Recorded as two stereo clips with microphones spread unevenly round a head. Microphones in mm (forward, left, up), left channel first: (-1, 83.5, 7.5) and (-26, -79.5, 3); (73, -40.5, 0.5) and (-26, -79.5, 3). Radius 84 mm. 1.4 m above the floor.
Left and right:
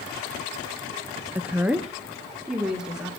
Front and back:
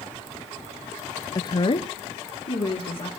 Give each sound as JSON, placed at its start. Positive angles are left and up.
{"t": 1.4, "sound": "a woman speaking", "azimuth_deg": -25, "distance_m": 0.5}